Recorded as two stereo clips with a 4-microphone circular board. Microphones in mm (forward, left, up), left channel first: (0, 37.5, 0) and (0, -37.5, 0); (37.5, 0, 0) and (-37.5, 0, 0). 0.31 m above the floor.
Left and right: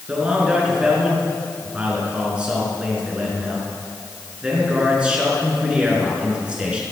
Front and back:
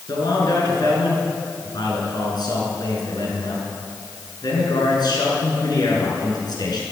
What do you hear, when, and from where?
0.1 s a man speaking: 15° right, 5 m